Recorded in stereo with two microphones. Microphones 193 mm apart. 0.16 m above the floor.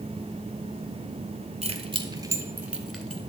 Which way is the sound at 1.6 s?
35° right (ahead or behind).